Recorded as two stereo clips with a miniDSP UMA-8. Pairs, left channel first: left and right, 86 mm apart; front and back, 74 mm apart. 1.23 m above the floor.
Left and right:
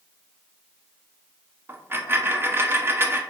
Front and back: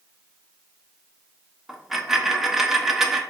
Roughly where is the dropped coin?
Right.